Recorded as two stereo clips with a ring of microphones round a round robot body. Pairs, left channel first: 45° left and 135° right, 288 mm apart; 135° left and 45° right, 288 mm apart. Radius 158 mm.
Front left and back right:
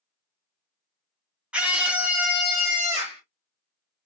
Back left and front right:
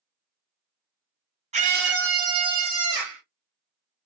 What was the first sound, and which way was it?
A scream, 55° right.